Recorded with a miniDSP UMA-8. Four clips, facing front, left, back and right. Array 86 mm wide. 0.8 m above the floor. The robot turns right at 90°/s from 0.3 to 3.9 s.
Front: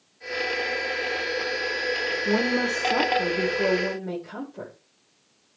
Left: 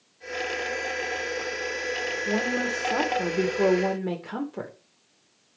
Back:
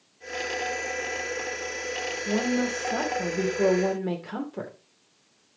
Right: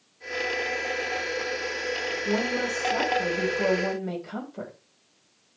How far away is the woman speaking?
About 2.5 m.